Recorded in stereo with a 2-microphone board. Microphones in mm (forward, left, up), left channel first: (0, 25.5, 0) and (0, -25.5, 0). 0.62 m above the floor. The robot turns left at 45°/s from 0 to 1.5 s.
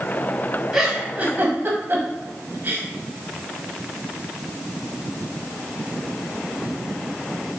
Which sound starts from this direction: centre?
A giggle, at 0.7 s.